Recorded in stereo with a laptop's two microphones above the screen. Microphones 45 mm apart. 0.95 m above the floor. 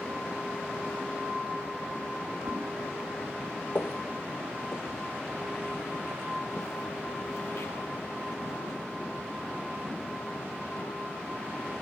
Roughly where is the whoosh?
Right.